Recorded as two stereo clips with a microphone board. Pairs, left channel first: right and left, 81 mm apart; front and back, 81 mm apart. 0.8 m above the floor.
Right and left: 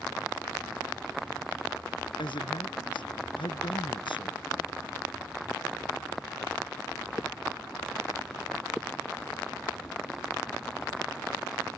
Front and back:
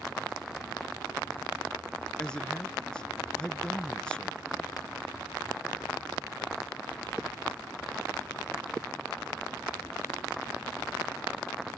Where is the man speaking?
80° right.